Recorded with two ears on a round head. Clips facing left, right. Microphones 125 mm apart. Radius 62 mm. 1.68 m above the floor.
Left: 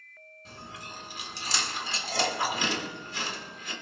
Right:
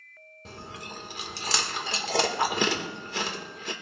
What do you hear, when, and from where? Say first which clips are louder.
0.5 s chewing: right 3 dB; 50° right (ahead or behind), 2 m